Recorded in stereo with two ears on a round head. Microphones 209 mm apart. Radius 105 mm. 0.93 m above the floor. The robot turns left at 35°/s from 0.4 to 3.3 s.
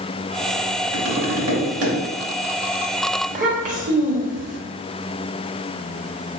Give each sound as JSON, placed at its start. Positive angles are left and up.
{"t": 0.9, "sound": "tapping", "azimuth_deg": -80, "distance_m": 2.0}
{"t": 3.2, "sound": "a child speaking", "side_deg": -35, "distance_m": 1.2}